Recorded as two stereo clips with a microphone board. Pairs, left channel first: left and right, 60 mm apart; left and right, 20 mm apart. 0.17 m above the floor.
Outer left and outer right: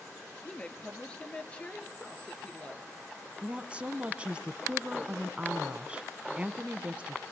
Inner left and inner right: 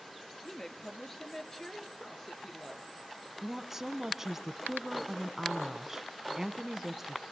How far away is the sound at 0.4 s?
About 3 m.